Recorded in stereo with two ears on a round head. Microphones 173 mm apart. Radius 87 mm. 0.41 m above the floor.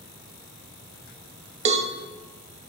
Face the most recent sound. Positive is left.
turn(degrees=-35)  # may be behind; listen again after turning